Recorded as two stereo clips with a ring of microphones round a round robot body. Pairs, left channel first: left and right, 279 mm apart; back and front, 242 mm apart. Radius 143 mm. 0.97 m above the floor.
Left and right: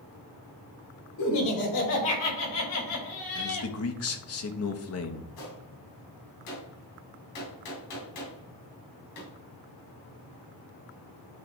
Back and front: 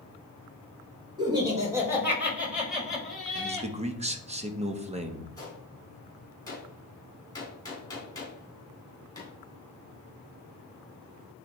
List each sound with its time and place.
1.2 s laughter: 70° left, 5 m; by 3.7 s 95° left, 7 m
3.4 s a man speaking: 60° left, 1.3 m
5.4 s a gunshot: 105° left, 4 m